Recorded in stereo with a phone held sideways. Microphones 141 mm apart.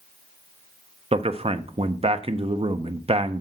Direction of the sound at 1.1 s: 40° right (ahead or behind).